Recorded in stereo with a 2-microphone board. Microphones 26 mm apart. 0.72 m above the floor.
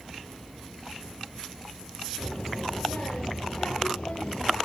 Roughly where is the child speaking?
Left.